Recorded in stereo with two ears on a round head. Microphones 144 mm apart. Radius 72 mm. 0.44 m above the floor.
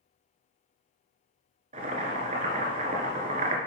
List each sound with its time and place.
1.7 s boiling: 45° right (ahead or behind), 1.3 m